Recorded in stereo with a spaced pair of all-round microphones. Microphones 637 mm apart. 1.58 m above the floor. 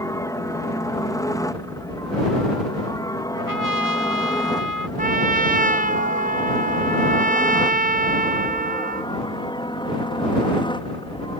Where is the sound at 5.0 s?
15° right (ahead or behind).